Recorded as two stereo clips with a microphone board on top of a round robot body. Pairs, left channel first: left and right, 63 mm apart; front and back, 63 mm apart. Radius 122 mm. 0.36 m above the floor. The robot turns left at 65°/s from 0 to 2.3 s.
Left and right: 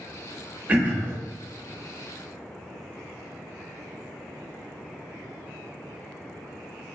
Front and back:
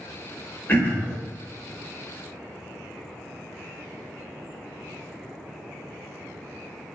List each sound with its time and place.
0.7 s throat clearing: 35° right, 1.2 m; by 1.1 s 65° right, 1.2 m